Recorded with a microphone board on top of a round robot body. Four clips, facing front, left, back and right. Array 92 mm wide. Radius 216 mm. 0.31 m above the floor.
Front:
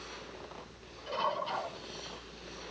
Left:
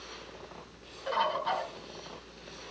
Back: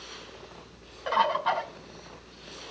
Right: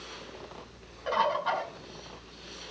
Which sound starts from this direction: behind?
A bird, at 1.1 s.